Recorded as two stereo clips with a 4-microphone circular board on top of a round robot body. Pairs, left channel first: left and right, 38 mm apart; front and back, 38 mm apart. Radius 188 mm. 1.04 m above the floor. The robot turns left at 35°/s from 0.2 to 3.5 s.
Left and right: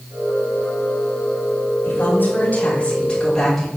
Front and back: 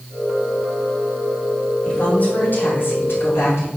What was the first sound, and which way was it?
A woman speaking, 60° left.